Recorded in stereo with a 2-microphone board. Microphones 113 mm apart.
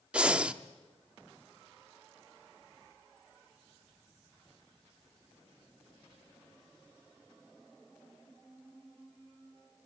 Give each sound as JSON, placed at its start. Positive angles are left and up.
{"t": 0.1, "sound": "breathing", "side_deg": -10, "distance_m": 0.6}